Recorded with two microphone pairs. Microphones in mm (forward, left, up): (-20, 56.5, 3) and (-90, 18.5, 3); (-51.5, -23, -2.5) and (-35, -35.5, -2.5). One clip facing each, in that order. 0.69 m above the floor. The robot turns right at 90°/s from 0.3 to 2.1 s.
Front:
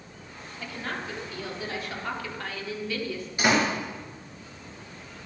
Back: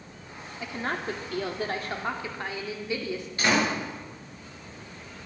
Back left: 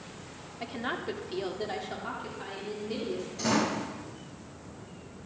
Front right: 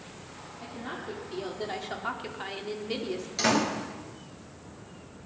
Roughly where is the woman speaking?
Behind left.